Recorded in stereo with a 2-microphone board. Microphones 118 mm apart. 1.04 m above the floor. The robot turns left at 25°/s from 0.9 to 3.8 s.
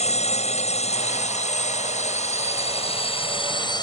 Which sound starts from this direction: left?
A drone, at 0.0 s.